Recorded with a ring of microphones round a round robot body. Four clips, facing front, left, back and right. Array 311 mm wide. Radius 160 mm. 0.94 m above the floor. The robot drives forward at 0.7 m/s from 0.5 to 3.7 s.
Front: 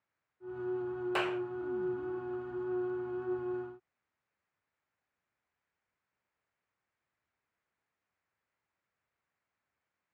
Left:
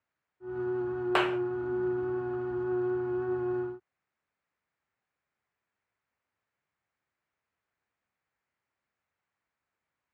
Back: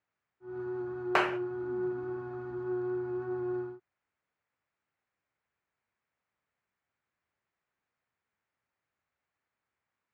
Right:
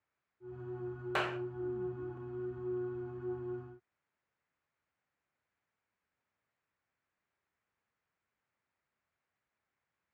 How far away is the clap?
About 0.6 m.